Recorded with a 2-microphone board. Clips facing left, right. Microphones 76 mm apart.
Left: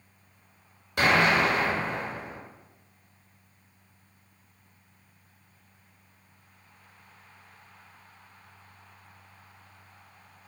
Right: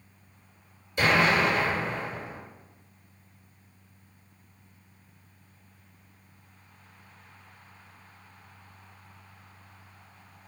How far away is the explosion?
About 1.8 m.